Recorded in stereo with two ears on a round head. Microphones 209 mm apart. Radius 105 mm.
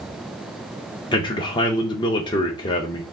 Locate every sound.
1.1 s a man speaking: 20° left (ahead or behind), 0.6 m